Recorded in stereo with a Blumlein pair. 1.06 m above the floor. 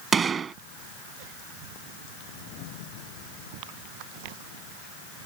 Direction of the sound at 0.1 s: 20° right.